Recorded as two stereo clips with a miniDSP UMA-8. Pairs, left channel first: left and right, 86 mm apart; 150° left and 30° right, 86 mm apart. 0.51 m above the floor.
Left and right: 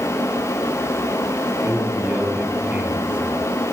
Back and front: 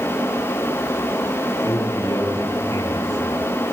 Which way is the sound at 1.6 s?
160° right.